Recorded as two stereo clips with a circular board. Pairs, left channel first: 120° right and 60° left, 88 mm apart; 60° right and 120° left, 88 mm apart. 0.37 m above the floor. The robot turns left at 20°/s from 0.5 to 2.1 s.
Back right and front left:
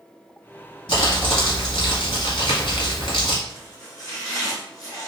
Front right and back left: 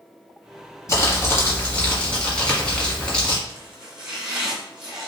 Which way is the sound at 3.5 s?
160° right.